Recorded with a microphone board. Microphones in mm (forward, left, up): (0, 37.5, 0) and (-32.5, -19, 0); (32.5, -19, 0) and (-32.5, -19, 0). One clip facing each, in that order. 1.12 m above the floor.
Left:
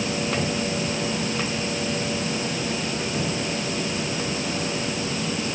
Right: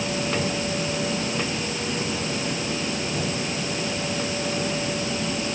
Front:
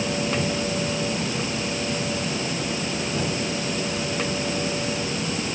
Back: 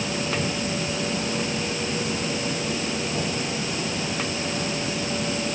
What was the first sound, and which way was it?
Only background noise.